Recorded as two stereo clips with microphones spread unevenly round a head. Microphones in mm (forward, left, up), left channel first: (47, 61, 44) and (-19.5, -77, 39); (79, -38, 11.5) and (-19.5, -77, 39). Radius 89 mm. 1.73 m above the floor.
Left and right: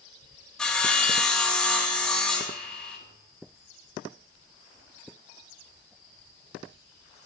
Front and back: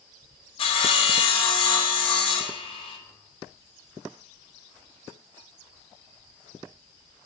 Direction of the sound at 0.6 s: 20° right.